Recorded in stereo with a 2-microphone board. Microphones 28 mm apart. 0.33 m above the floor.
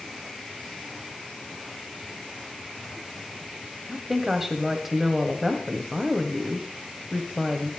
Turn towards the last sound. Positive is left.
turn(degrees=-10)  # may be behind; listen again after turning